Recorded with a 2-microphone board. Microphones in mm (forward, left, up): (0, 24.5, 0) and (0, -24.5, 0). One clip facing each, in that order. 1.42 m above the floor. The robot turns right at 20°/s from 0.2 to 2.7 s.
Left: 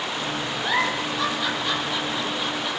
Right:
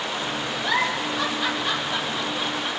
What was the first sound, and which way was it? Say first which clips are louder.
A giggle: even; 15° left (ahead or behind).